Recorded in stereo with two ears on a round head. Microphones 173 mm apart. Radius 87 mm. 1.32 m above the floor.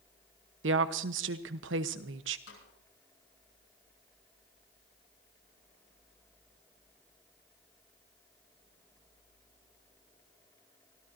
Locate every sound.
0.6 s a woman speaking: 70° right (ahead or behind), 1.0 m
2.5 s a snare drum: 75° left (ahead or behind), 8 m